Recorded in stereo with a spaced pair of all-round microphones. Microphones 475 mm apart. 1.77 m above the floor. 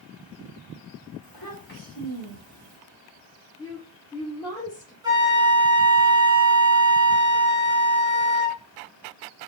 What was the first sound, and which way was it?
A child speaking, 45° left (ahead or behind).